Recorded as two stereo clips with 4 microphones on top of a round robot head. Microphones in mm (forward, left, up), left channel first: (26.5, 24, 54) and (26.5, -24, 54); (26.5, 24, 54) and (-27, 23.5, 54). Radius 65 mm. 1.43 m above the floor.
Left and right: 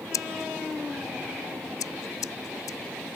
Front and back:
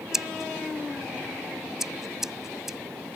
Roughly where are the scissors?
Left.